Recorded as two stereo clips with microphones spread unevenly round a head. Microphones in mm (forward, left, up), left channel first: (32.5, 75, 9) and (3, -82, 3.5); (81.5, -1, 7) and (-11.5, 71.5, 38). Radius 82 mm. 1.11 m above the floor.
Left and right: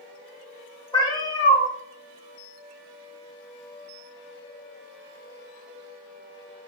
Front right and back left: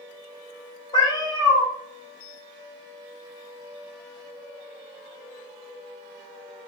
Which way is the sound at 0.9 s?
20° left.